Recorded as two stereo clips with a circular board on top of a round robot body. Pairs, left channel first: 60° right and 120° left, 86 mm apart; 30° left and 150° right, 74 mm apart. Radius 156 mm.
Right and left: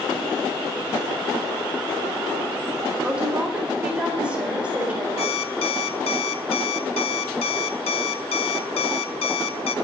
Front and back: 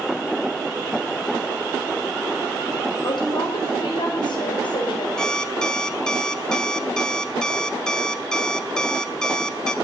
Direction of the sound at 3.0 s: 40° left.